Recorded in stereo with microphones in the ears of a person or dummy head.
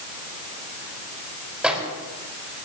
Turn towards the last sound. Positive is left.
turn(degrees=-5)  # may be behind; listen again after turning